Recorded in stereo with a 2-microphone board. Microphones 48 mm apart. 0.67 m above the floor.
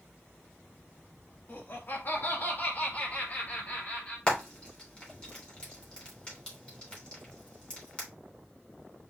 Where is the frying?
20° left (ahead or behind), 3 m.